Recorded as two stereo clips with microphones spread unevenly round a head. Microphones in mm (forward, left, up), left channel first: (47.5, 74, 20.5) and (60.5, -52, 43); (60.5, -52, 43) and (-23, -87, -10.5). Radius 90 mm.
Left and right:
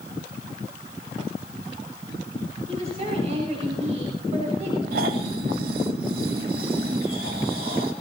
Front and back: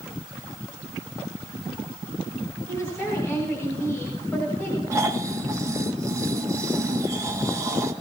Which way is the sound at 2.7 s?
45° right.